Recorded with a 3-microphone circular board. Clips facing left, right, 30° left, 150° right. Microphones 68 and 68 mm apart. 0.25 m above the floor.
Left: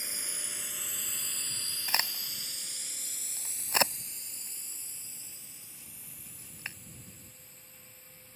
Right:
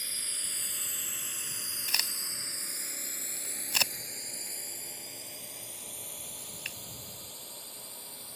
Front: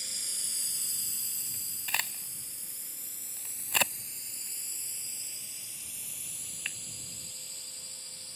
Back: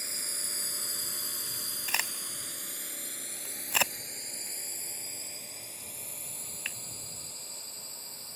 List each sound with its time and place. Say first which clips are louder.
0.0 s a drone: left 1 dB, back 4 dB; 160° left; by 8.4 s 95° right
1.9 s a crack: left 5 dB, back 1 dB; 125° left